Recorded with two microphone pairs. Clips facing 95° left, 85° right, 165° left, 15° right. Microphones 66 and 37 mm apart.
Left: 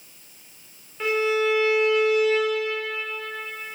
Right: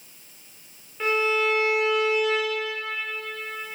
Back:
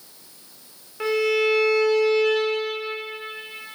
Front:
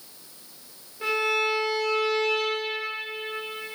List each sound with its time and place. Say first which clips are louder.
1.0 s a violin: left 1 dB, back 4 dB; 175° right, 4 m